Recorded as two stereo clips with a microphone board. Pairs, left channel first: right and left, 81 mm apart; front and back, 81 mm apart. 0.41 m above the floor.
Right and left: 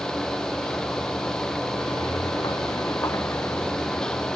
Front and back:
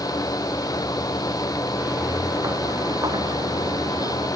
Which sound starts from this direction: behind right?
Footsteps, at 1.8 s.